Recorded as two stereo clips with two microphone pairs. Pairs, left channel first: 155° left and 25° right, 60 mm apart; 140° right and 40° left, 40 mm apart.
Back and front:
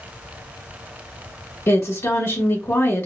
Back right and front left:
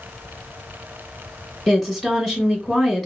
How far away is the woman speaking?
About 1.3 m.